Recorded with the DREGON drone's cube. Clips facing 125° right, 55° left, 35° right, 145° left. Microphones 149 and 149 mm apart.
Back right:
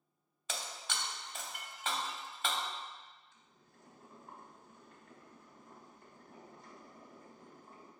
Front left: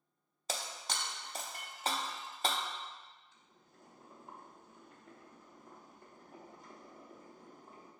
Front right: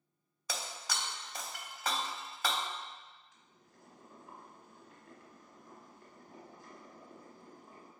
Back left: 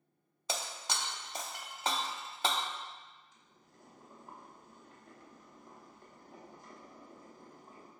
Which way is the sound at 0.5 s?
90° left.